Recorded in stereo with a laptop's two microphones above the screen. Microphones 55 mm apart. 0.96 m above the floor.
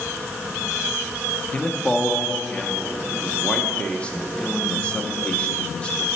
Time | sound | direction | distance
1.5 | a man speaking | 20° left (ahead or behind) | 0.5 m